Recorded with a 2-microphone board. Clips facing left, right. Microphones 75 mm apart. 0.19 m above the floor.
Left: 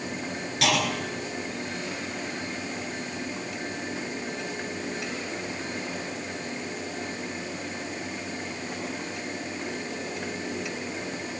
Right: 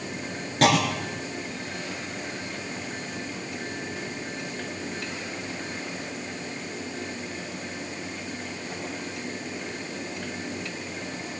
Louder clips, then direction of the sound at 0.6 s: Right 5 dB; 40° right (ahead or behind).